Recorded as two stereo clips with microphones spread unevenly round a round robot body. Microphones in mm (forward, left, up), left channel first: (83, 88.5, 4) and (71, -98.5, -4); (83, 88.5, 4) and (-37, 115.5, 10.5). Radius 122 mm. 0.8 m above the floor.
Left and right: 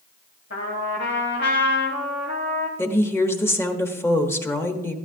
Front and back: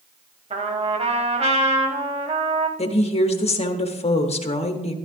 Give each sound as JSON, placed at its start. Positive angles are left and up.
{"t": 0.5, "sound": "a trumpet", "azimuth_deg": 135, "distance_m": 1.8}
{"t": 2.8, "sound": "a woman speaking", "azimuth_deg": 10, "distance_m": 1.4}